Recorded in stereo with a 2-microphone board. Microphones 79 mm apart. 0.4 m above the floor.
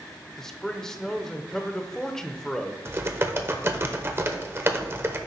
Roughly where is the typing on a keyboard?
Right.